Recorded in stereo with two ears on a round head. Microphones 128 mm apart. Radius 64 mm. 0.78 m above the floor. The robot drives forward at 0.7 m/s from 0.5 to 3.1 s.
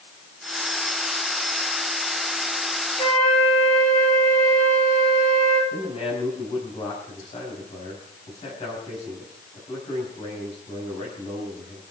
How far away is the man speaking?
About 5 m.